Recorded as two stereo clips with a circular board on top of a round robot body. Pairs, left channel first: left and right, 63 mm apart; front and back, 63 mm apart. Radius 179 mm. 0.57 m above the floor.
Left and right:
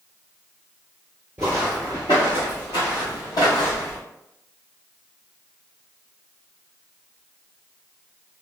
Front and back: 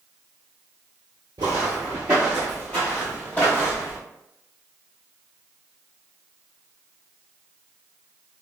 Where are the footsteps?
160° right, 0.6 m; by 4.0 s 65° left, 1.5 m.